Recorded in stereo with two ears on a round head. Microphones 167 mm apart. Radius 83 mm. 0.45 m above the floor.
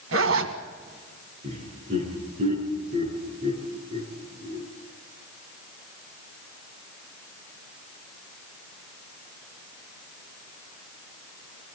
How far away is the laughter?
About 6 m.